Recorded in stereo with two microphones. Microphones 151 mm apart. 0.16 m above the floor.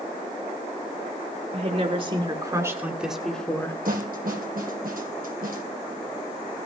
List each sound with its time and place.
1.5 s a woman speaking: 45° right (ahead or behind), 3 m; by 3.8 s 15° left (ahead or behind), 2.5 m
3.9 s a snare drum: 70° right (ahead or behind), 2.5 m